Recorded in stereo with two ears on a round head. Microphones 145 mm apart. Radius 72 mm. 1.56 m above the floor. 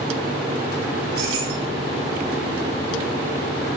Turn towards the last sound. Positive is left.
turn(degrees=-65)  # may be behind; listen again after turning